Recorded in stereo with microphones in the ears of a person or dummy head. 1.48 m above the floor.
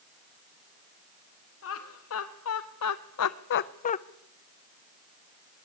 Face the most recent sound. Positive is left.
turn(degrees=30)  # may be behind; listen again after turning